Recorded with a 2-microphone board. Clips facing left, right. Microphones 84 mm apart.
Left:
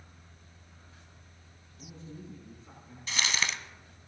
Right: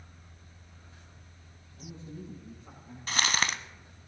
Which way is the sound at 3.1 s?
50° right (ahead or behind).